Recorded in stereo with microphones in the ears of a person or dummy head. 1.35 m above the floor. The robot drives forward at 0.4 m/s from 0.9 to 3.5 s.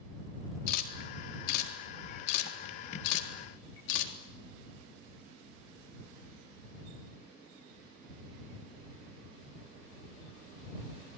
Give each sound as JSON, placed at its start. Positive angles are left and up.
{"t": 0.7, "sound": "a camera shutter", "side_deg": 60, "distance_m": 4.0}